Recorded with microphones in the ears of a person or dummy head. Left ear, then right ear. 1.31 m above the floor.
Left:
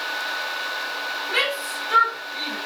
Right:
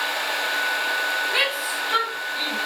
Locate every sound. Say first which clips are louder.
1.3 s a shout: right 1 dB; 25° left (ahead or behind), 8.5 m